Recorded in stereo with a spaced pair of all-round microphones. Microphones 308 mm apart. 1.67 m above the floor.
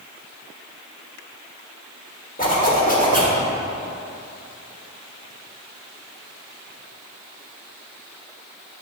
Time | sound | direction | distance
2.4 | a zipper | 25° left (ahead or behind) | 1.4 m